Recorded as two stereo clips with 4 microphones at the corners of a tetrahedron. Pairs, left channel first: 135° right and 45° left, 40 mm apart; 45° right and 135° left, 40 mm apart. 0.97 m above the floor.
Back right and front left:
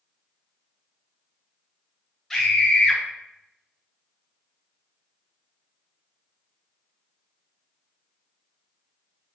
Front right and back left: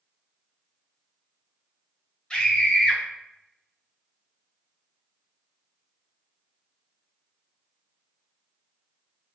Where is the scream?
70° right, 0.6 m.